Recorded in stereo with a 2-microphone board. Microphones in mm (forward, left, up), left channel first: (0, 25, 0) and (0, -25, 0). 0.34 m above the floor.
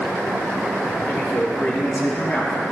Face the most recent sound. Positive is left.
turn(degrees=40)  # may be behind; listen again after turning